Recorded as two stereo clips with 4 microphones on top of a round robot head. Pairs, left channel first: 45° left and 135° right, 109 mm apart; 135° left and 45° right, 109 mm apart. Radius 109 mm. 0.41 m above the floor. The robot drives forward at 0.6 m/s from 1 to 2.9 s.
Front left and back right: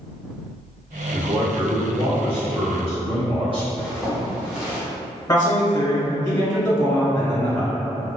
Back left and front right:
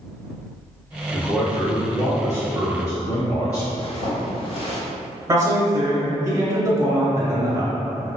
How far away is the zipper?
About 1.1 m.